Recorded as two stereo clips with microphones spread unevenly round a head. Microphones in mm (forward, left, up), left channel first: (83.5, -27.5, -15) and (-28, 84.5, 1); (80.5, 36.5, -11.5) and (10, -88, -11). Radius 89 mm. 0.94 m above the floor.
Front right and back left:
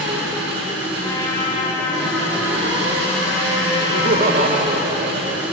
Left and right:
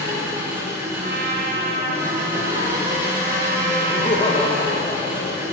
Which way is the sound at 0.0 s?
165° left.